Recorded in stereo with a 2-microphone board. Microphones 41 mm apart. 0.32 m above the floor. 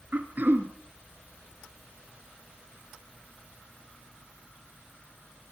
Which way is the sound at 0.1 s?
45° right (ahead or behind).